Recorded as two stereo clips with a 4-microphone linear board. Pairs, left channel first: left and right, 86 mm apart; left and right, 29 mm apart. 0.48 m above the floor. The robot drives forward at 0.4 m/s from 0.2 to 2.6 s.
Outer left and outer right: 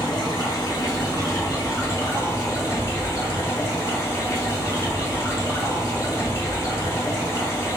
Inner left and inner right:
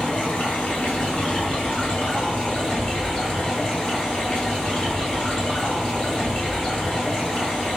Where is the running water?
55° left (ahead or behind), 1.6 m; by 7.8 s 40° left (ahead or behind), 2 m.